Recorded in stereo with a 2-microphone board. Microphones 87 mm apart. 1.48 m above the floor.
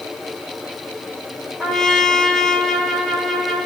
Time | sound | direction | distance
1.6 | a trumpet | 5° left (ahead or behind) | 1.6 m